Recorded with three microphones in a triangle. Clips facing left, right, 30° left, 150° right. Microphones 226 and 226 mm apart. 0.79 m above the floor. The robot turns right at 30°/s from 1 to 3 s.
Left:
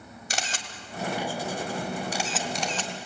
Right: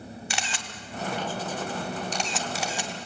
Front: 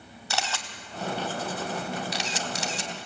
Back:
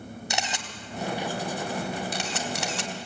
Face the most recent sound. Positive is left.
turn(degrees=-165)